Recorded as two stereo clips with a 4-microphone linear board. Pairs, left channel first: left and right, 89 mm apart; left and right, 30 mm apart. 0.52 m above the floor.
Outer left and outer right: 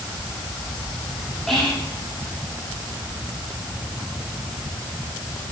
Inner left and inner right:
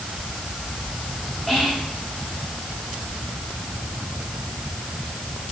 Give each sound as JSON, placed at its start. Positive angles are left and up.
{"t": 1.5, "sound": "whispering", "side_deg": 0, "distance_m": 1.0}